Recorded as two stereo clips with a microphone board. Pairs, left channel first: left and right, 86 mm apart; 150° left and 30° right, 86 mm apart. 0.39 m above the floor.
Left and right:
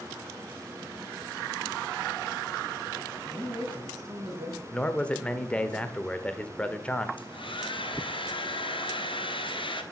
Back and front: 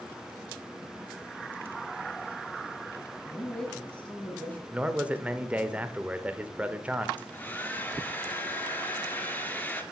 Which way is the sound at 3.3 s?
125° right.